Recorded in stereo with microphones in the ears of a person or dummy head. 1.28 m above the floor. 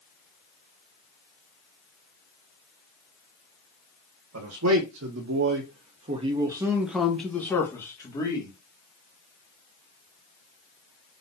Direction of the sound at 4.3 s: 85° right.